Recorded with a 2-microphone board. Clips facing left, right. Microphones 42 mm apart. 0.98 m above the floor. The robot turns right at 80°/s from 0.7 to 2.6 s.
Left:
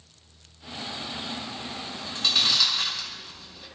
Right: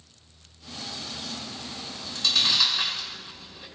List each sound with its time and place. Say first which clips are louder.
1.8 s chewing: even; 55° left (ahead or behind), 4.5 m; by 3.7 s 5° right (ahead or behind), 4.5 m